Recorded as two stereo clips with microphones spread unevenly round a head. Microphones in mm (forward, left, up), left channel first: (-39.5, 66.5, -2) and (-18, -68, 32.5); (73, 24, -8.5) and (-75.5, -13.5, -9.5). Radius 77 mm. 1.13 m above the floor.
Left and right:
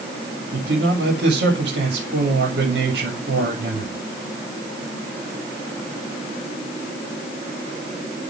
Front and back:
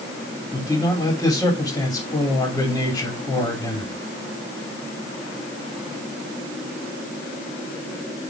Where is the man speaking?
60° right, 2.5 m.